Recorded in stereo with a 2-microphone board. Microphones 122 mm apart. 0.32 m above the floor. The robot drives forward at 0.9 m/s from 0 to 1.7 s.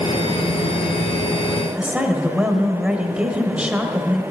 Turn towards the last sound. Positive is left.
turn(degrees=-10)  # may be behind; listen again after turning